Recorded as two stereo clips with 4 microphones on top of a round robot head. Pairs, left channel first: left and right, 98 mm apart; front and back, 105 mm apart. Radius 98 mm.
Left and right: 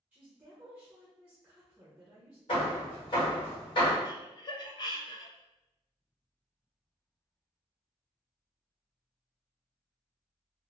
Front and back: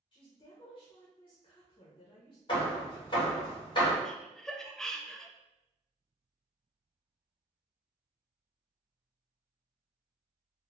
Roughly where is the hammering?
Ahead left.